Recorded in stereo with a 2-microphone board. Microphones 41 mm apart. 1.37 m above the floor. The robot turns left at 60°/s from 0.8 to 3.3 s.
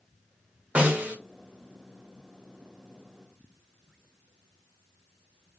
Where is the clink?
I don't hear a clink.